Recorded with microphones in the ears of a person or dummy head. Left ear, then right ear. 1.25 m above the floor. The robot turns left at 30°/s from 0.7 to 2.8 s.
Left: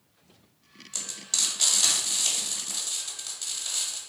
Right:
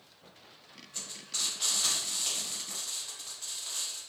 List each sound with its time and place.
0.9 s frying: 65° left (ahead or behind), 1.2 m; by 4.0 s 30° left (ahead or behind), 1.2 m